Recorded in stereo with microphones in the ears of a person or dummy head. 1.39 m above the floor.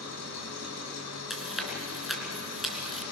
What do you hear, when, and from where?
0.0 s an engine running: 80° left, 5 m
1.3 s chewing: 5° right (ahead or behind), 3.5 m